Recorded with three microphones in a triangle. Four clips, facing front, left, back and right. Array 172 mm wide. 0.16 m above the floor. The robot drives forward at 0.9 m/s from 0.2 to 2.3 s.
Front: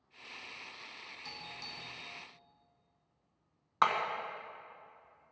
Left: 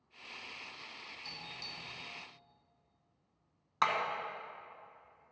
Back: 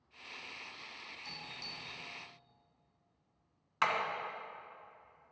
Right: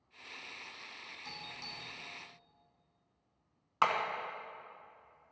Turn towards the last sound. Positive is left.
turn(degrees=-20)